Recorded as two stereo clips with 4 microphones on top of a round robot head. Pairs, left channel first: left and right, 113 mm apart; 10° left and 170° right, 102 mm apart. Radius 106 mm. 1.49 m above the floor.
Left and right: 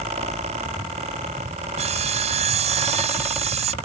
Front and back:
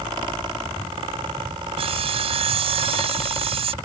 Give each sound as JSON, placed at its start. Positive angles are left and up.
{"t": 1.8, "sound": "sawing", "azimuth_deg": -130}